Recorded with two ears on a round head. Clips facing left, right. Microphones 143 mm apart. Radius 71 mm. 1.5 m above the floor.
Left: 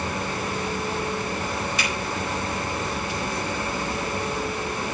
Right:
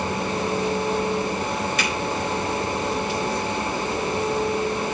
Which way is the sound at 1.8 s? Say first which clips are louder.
Right 3 dB; 45° right (ahead or behind).